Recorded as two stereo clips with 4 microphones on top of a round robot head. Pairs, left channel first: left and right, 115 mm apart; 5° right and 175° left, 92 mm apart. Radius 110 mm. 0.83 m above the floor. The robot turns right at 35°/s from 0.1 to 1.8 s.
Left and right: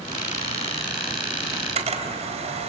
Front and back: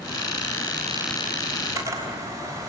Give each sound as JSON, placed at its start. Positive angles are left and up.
{"t": 1.5, "sound": "a camera shutter", "azimuth_deg": -130, "distance_m": 3.0}